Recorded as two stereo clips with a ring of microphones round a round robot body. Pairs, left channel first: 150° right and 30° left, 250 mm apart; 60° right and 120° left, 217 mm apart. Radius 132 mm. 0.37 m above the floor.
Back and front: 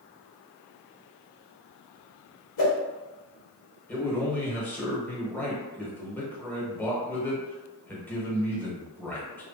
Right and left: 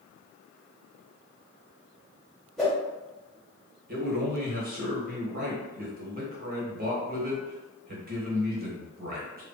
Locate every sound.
2.6 s a whoosh: 150° right, 1.1 m
3.9 s a man speaking: 130° left, 1.0 m